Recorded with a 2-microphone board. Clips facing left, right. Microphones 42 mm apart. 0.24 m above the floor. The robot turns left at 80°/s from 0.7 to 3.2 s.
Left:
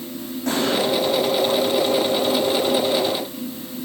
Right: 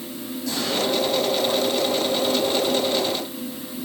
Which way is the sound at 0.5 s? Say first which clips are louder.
Left 5 dB; 50° left (ahead or behind).